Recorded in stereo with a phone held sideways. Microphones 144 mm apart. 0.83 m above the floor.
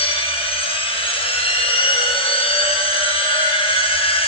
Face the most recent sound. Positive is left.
turn(degrees=40)  # may be behind; listen again after turning